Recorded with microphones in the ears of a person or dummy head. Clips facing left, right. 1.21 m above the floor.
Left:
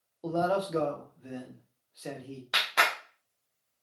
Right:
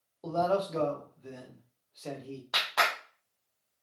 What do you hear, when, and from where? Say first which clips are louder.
0.2 s a man speaking: even; 20° left (ahead or behind), 0.7 m
2.5 s a clap: even; 35° left (ahead or behind), 0.6 m